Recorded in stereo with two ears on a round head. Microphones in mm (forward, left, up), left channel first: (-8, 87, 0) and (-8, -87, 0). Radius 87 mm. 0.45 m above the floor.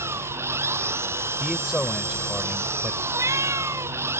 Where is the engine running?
15° right (ahead or behind).